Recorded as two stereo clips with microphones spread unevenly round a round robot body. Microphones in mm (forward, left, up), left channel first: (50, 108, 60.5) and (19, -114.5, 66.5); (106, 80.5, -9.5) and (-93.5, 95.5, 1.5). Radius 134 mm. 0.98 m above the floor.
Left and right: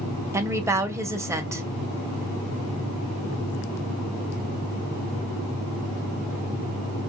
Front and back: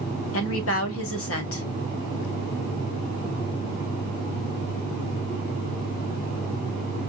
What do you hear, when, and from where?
0.3 s a woman speaking: 20° right, 2.0 m